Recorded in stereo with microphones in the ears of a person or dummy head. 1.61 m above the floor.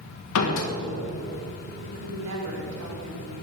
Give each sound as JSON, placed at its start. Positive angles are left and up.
{"t": 0.3, "sound": "a door slam", "side_deg": 70, "distance_m": 1.3}
{"t": 1.8, "sound": "a woman speaking", "side_deg": -75, "distance_m": 2.5}